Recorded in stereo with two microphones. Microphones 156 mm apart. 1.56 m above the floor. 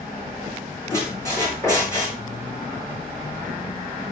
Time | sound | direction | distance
0.9 | a squeak | 20° left (ahead or behind) | 5.5 m